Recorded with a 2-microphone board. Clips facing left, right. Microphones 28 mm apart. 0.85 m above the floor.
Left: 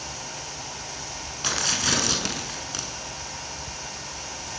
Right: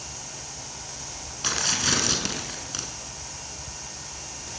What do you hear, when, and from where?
1.4 s tearing paper: 5° right (ahead or behind), 5 m